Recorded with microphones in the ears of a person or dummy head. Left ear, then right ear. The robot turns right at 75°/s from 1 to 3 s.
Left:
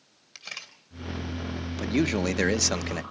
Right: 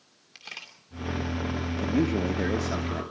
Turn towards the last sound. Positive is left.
turn(degrees=110)